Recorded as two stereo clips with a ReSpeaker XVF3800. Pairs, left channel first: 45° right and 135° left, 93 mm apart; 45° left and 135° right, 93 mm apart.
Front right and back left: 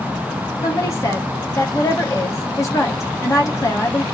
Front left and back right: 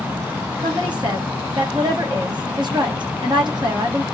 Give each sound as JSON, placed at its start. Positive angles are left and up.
{"t": 0.6, "sound": "a woman speaking", "azimuth_deg": -100, "distance_m": 1.6}